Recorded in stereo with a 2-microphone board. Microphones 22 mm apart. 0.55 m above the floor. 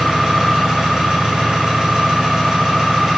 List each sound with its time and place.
0.0 s an engine running: 35° right (ahead or behind), 1.4 m